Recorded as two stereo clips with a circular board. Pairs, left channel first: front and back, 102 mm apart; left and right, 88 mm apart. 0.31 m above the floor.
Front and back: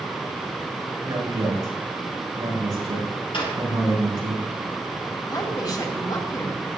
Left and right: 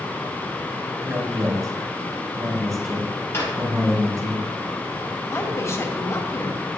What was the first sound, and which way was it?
A man speaking, 140° right.